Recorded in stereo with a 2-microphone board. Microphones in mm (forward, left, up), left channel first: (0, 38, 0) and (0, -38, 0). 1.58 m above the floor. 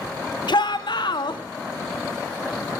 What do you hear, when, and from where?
0.5 s a shout: 75° left (ahead or behind), 1.5 m